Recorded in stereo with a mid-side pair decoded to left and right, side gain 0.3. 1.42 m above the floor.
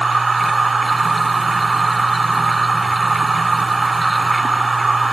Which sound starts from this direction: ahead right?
A machine running, at 0.0 s.